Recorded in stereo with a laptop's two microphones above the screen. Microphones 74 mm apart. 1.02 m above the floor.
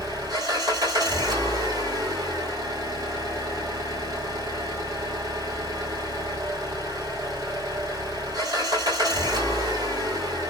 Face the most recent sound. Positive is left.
turn(degrees=-60)  # may be behind; listen again after turning